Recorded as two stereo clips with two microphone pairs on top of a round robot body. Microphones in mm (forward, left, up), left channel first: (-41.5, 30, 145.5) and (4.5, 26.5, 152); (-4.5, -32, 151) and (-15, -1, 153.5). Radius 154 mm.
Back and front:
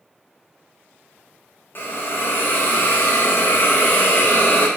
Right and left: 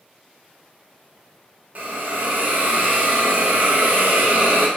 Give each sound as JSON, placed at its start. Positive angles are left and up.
{"t": 1.8, "sound": "a hiss", "azimuth_deg": 145, "distance_m": 0.9}